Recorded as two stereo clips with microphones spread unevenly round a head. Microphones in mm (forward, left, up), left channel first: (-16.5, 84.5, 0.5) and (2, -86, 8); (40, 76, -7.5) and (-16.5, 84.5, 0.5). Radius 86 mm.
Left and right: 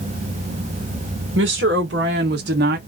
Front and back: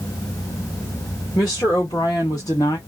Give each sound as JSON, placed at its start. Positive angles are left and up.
{"t": 1.4, "sound": "a woman speaking", "azimuth_deg": -60, "distance_m": 1.4}